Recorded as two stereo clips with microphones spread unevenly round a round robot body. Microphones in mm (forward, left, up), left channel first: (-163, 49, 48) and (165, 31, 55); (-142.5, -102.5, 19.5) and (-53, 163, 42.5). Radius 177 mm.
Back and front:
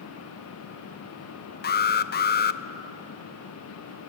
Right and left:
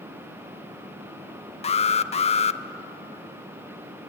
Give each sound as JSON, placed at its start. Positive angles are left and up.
{"t": 1.6, "sound": "an alarm", "azimuth_deg": -150, "distance_m": 0.6}